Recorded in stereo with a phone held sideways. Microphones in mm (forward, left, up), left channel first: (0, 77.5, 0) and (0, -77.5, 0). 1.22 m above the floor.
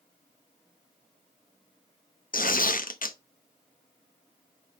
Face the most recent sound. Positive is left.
turn(degrees=65)  # may be behind; listen again after turning